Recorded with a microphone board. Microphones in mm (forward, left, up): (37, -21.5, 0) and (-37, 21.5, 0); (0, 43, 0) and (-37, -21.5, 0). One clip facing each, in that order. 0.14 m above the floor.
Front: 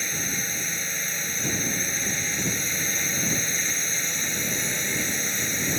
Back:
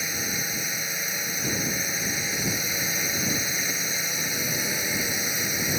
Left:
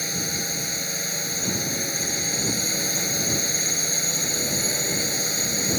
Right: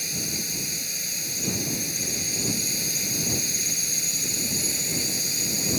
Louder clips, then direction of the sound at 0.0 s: Even, left 4 dB; 70° left.